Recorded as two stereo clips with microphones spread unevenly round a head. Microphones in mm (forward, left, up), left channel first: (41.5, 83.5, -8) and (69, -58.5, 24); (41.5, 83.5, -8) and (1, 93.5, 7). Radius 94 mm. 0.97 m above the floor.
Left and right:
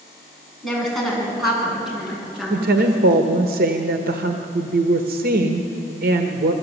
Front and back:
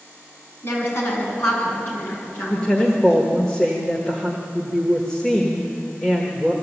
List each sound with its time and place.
0.6 s a woman speaking: 10° left, 8 m; by 3.2 s 5° left, 10 m
2.5 s a woman speaking: 80° right, 1.3 m